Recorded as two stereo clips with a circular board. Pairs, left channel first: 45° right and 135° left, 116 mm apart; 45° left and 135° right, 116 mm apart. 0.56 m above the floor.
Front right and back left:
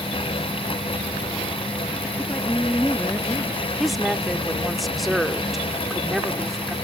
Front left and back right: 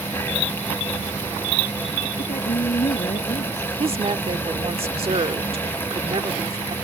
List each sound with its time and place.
2.2 s a woman speaking: 30° left
3.8 s a woman speaking: 135° right